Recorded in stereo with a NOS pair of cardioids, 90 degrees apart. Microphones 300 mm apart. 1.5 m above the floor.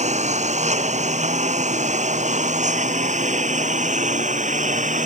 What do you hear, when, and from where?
0.0 s a lawn mower: 25° right